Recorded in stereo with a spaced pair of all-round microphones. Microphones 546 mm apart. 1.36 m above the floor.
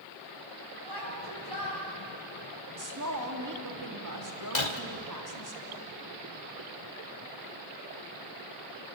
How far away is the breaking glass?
About 1.6 m.